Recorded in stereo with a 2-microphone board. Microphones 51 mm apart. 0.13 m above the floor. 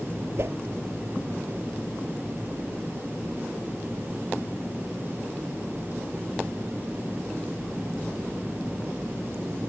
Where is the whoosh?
60° right (ahead or behind).